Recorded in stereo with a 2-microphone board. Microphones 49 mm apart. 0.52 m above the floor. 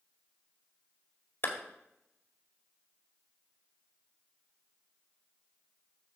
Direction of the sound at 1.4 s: 50° left (ahead or behind).